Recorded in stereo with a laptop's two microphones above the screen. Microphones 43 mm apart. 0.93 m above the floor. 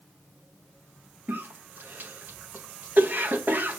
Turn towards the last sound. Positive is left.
turn(degrees=-55)  # may be behind; listen again after turning